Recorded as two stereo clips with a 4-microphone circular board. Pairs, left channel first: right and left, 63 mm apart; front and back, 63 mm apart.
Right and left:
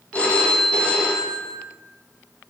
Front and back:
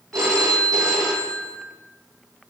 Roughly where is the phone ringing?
Behind right.